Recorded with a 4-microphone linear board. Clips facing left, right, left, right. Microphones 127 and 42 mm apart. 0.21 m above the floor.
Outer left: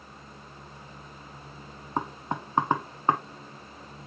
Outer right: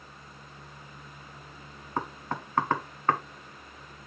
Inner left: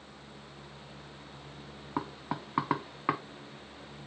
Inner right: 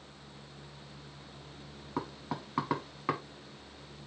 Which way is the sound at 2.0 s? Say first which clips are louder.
Outer left 2 dB, inner left 2 dB; 20° left (ahead or behind).